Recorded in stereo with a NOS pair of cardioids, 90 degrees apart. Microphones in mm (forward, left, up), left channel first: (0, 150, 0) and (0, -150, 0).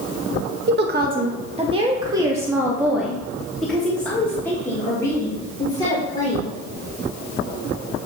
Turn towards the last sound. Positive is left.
turn(degrees=15)